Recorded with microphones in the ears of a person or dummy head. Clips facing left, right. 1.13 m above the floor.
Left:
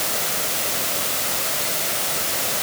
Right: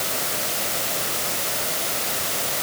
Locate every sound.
Only background noise.